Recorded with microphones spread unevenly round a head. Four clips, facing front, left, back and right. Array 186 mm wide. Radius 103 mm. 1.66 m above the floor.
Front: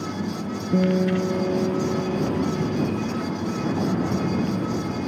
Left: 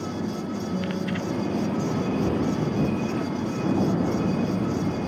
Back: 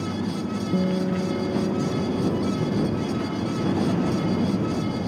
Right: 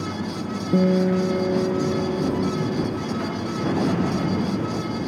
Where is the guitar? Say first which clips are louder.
Right 13 dB, front 5 dB; 50° right.